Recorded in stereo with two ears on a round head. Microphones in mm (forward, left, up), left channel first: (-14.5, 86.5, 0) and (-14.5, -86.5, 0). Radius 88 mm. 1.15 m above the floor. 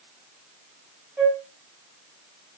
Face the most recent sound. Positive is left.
turn(degrees=-10)  # may be behind; listen again after turning